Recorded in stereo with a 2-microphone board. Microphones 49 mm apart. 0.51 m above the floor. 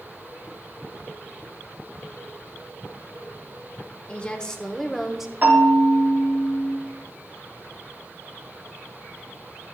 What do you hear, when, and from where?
4.1 s a woman speaking: 25° left (ahead or behind), 1.4 m; by 5.3 s 10° right (ahead or behind), 1.1 m
5.4 s a bell: 40° right (ahead or behind), 4.5 m